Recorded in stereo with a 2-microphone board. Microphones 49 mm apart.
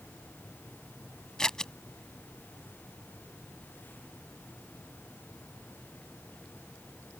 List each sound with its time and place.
1.4 s scissors: 15° left (ahead or behind)